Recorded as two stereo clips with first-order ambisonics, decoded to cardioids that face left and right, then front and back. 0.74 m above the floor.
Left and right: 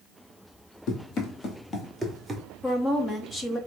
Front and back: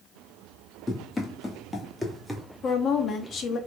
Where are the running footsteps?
70° left, 1.1 m; by 2.4 s 90° right, 0.7 m.